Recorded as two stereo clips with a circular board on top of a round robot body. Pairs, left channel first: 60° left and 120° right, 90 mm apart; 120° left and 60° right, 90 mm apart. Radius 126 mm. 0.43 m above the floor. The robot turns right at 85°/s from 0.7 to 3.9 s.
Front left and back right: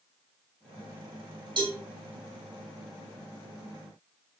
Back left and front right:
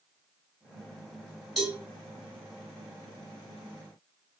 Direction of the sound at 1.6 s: 150° right.